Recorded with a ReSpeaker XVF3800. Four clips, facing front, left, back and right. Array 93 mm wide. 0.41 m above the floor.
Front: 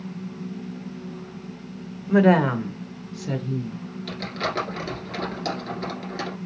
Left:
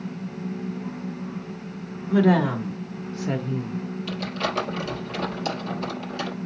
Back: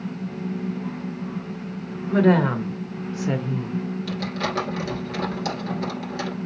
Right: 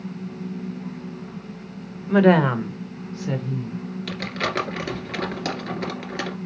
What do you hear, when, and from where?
2.1 s a woman speaking: 75° right, 1.2 m; by 3.8 s 140° left, 1.1 m
4.1 s crumpling: 95° right, 2.5 m